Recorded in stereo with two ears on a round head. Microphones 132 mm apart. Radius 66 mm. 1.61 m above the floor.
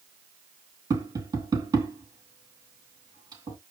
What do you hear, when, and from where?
0.9 s tapping: 25° right (ahead or behind), 4 m